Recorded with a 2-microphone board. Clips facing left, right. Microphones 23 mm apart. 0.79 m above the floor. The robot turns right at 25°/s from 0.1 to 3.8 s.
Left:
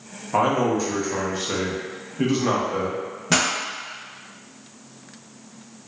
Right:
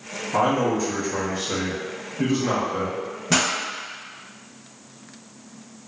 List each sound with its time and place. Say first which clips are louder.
0.3 s a man speaking: left 1 dB; 25° left, 0.6 m; by 3.0 s 95° left, 0.6 m
3.3 s a pop: even; 10° left (ahead or behind), 0.5 m; by 3.5 s 5° left (ahead or behind), 0.5 m